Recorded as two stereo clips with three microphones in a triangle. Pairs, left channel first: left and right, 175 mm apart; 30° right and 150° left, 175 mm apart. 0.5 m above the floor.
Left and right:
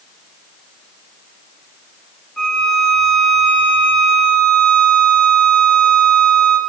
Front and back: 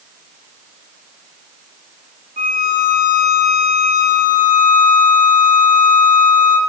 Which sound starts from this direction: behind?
A violin, at 2.4 s.